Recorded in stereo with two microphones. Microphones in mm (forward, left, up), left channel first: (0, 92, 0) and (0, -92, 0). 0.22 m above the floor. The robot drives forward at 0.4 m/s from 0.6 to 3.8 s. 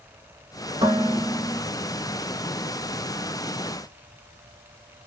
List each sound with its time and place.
0.8 s dishes clattering: 35° right (ahead or behind), 1.6 m; by 1.6 s 40° right (ahead or behind), 1.4 m